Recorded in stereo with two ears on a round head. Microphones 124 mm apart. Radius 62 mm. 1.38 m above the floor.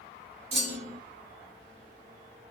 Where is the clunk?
50° right (ahead or behind), 1.3 m.